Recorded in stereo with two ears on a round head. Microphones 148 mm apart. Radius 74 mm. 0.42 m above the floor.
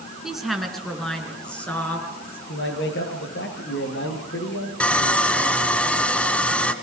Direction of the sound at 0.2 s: Centre (ahead or behind).